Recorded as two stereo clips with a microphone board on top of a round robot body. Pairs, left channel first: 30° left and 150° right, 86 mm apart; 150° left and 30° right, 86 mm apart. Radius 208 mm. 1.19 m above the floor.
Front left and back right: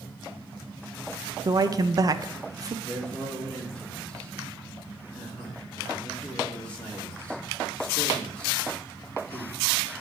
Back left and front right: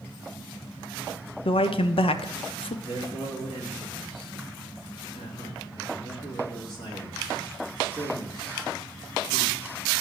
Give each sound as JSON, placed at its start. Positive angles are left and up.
{"t": 1.4, "sound": "a man speaking", "azimuth_deg": 160, "distance_m": 0.7}
{"t": 2.8, "sound": "a man speaking", "azimuth_deg": 110, "distance_m": 3.5}